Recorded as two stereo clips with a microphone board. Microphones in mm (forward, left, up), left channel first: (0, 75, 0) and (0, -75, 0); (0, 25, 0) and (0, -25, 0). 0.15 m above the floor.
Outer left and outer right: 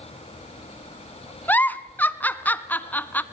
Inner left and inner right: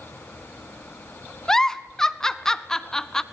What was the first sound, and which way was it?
A giggle, 10° left (ahead or behind).